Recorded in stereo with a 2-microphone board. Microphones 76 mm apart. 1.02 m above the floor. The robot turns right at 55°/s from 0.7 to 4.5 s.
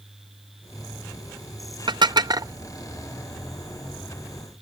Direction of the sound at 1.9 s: 75° right (ahead or behind).